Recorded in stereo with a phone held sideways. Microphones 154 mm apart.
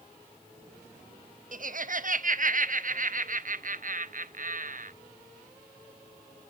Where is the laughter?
60° right (ahead or behind), 0.6 m.